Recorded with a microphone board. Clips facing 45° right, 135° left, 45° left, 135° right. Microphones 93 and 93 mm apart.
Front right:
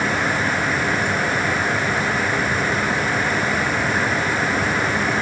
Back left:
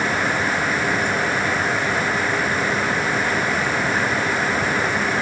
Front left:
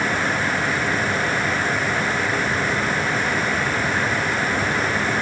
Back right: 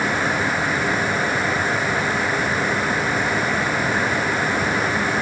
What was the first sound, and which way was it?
Only background noise.